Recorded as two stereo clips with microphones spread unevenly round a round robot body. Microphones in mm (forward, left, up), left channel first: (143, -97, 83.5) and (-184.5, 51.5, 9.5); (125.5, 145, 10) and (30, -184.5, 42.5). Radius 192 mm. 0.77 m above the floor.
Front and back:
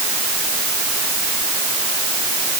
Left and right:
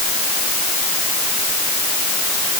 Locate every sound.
Only background noise.